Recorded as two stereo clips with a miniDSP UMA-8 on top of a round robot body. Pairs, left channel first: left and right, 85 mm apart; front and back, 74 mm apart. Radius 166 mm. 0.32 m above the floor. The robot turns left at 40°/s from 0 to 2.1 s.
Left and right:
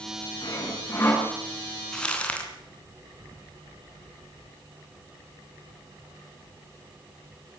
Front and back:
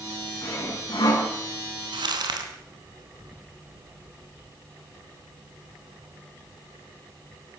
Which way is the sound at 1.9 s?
175° left.